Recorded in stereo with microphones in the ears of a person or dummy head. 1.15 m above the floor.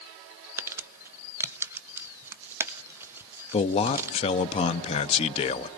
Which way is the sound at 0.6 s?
10° right (ahead or behind).